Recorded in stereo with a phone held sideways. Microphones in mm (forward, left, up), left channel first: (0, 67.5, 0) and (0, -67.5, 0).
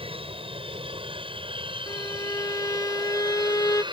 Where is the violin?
25° left (ahead or behind).